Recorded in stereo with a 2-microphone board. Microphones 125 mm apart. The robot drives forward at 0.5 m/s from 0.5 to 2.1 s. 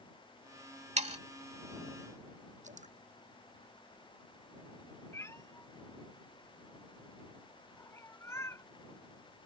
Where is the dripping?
85° right.